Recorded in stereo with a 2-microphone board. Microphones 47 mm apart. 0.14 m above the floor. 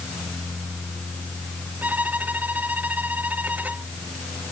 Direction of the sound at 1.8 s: 35° right (ahead or behind).